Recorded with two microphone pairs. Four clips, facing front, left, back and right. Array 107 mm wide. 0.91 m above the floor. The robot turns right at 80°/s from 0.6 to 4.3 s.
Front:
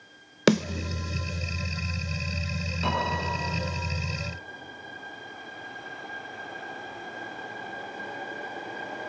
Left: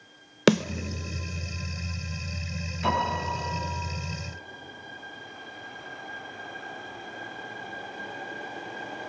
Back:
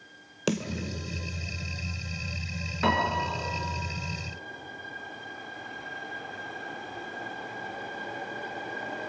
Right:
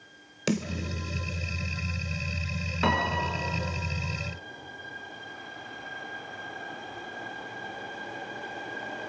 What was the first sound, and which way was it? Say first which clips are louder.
A snare drum: left 8 dB, front 7 dB; 55° left.